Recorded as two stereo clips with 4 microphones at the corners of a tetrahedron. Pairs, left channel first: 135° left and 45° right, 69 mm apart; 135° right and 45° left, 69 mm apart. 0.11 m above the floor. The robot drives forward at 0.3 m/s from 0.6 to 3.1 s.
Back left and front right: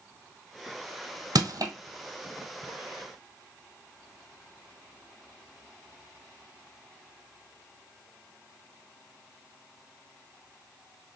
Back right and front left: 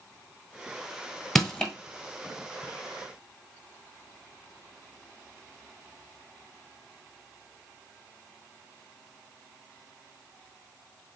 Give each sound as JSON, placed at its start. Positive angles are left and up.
{"t": 1.4, "sound": "crushing", "azimuth_deg": -50, "distance_m": 1.2}